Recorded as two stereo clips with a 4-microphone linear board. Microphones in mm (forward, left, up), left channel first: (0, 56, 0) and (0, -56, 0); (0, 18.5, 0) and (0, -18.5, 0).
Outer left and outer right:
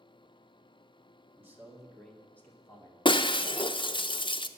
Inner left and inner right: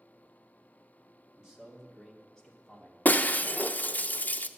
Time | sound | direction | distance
1.4 | a man speaking | 20° right (ahead or behind) | 2 m
3.0 | breaking glass | 45° left (ahead or behind) | 0.5 m